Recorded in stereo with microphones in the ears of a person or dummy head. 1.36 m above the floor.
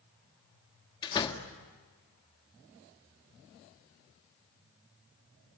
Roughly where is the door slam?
Left.